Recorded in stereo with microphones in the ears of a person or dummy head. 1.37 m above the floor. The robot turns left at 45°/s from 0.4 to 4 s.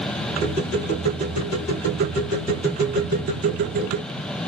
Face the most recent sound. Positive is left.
No sound to turn to.